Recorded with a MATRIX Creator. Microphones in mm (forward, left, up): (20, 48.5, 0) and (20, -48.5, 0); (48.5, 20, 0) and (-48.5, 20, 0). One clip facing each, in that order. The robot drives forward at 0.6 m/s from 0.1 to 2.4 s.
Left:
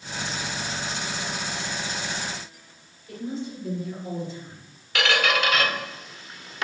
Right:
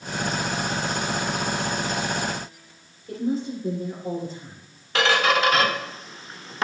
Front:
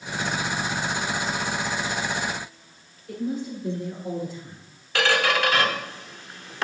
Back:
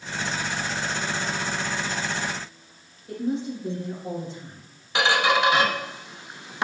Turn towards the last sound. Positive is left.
turn(degrees=-120)